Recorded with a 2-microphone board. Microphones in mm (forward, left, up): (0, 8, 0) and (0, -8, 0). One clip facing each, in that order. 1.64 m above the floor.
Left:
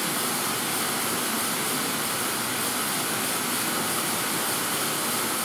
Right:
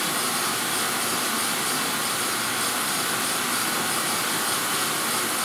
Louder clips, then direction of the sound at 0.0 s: Right 2 dB; 40° right (ahead or behind).